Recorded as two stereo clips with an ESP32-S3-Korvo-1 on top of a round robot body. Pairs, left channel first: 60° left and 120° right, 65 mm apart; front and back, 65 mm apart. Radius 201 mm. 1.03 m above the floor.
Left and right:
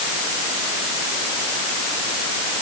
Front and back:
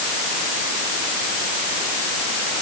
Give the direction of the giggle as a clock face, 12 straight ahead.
No giggle in this recording.